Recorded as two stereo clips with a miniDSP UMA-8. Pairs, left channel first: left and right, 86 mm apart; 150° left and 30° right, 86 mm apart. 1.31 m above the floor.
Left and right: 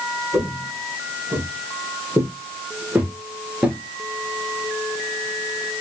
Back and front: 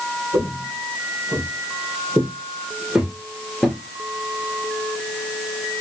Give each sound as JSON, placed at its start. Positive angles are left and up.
{"t": 0.3, "sound": "footsteps", "azimuth_deg": -25, "distance_m": 1.9}